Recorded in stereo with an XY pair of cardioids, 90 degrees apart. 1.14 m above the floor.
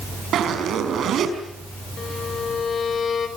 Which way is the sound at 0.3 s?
70° right.